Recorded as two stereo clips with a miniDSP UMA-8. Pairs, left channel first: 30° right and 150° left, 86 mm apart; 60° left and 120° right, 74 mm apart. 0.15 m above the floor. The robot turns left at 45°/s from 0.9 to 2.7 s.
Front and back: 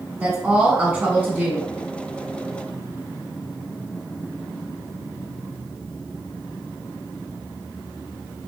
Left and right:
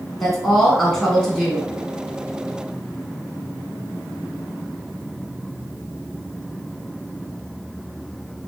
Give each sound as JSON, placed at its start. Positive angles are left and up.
{"t": 0.2, "sound": "a woman speaking", "azimuth_deg": 145, "distance_m": 1.2}